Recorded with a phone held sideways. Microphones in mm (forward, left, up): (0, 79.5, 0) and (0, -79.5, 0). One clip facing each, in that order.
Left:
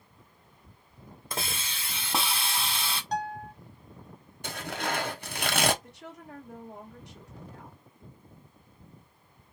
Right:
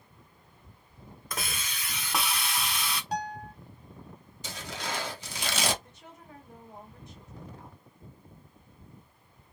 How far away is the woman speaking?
About 1.6 m.